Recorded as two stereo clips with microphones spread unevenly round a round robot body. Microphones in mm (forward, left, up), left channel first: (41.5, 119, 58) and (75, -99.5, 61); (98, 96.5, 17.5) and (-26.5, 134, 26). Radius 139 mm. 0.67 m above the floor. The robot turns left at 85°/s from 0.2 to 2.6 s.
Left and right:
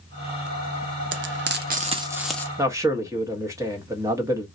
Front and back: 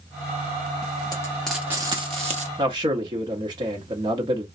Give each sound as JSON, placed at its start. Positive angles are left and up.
{"t": 1.1, "sound": "frying", "azimuth_deg": -70, "distance_m": 0.6}
{"t": 2.6, "sound": "a man speaking", "azimuth_deg": -150, "distance_m": 0.7}